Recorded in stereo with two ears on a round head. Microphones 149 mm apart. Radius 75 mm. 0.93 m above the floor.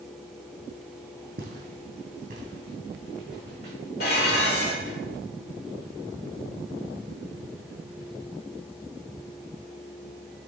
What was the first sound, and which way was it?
Footsteps, 55° right (ahead or behind).